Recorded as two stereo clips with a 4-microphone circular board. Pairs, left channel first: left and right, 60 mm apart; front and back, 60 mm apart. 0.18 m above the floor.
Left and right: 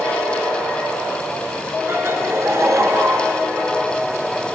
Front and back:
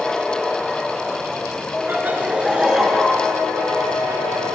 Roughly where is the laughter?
Behind right.